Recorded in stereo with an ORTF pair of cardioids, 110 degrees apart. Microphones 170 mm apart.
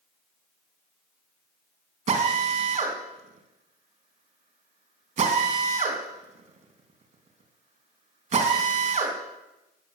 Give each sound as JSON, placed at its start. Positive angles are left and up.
{"t": 2.1, "sound": "a drill", "azimuth_deg": -45, "distance_m": 3.0}